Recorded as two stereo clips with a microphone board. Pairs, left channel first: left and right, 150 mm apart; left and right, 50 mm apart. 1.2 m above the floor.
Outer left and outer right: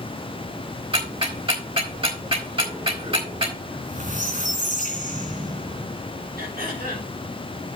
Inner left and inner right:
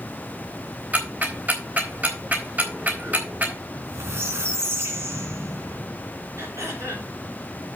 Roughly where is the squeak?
Right.